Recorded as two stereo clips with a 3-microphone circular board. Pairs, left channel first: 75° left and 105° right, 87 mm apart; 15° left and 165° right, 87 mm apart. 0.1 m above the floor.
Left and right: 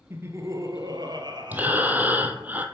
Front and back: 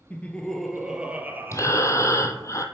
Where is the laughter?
50° right, 1.7 m; by 2.5 s 125° right, 2.5 m.